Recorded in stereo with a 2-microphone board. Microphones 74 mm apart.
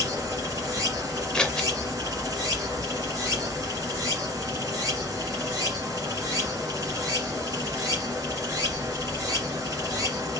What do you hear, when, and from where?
0.0 s running water: 60° right (ahead or behind), 1.6 m
1.3 s scissors: 15° left (ahead or behind), 0.6 m